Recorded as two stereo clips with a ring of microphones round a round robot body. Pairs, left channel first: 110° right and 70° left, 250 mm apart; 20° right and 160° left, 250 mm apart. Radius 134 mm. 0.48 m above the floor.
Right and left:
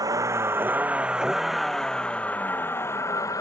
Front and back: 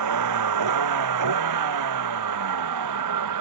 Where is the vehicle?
145° left; by 3.4 s 170° left.